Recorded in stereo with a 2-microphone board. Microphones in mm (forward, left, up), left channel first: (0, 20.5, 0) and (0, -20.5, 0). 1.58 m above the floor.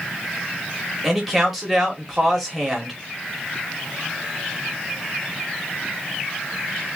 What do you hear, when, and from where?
1.0 s a man speaking: 5° right (ahead or behind), 1.9 m